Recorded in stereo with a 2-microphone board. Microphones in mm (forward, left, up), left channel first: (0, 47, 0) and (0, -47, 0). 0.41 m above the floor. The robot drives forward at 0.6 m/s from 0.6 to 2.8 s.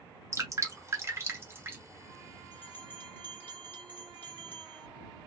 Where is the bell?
20° left (ahead or behind), 2.5 m.